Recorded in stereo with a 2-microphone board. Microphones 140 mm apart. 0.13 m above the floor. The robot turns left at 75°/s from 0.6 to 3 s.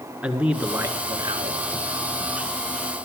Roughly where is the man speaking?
Ahead.